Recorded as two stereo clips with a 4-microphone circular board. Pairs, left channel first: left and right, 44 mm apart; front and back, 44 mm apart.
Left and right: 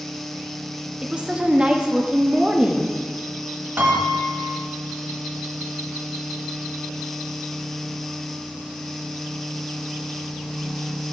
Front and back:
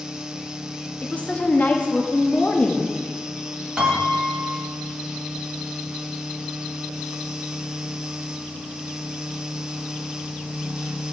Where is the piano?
110° right, 1.1 m.